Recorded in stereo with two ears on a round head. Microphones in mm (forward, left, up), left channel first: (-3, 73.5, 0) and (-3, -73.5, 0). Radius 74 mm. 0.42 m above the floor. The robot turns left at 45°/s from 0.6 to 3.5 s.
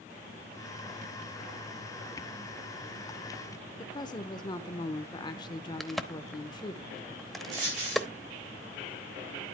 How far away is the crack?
About 0.8 m.